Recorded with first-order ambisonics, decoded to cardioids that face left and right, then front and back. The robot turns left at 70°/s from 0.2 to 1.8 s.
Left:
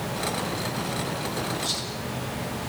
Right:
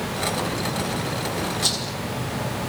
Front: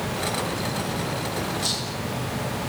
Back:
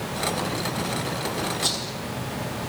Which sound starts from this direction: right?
A rattle, at 1.6 s.